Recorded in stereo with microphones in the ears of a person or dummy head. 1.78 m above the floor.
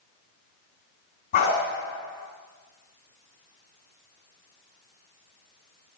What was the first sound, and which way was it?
A dog barking, 40° left (ahead or behind).